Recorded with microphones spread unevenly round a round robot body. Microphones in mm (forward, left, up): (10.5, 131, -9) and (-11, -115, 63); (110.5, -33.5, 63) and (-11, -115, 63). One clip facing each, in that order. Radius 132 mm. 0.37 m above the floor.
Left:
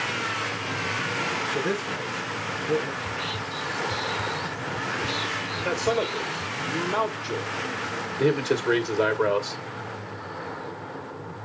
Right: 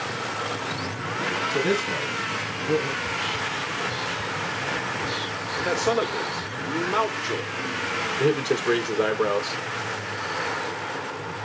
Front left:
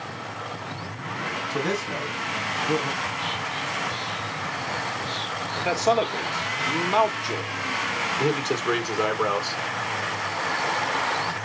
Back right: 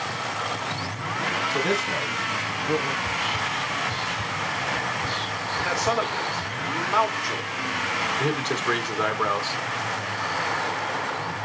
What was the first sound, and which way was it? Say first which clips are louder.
A man speaking: right 4 dB, even; 60° right.